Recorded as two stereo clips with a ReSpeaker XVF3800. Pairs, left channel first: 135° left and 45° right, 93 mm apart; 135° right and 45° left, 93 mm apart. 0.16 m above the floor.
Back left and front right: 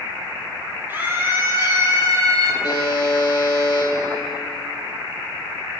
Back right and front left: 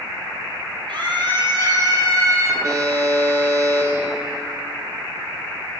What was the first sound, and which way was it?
A scream, 20° left.